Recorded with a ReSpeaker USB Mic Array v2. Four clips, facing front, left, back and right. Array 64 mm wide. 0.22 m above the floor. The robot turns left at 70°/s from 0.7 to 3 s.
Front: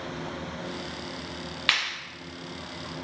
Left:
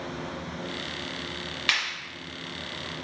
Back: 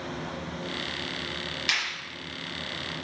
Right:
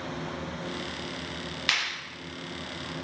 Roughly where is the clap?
Ahead.